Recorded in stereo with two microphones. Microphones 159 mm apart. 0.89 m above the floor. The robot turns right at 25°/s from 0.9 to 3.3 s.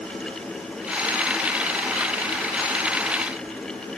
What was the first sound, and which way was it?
Only background noise.